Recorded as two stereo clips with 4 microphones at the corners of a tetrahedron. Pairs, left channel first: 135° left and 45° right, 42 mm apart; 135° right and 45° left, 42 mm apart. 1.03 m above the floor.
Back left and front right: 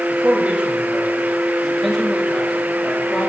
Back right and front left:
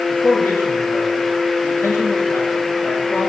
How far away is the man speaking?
About 2.5 m.